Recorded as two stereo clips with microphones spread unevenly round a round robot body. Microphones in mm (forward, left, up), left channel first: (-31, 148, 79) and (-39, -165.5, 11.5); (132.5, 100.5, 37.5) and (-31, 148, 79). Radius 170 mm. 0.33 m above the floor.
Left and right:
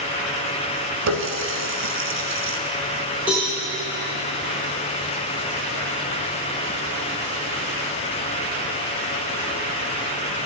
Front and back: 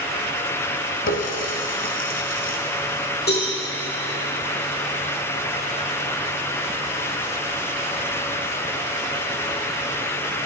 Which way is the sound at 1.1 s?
50° right.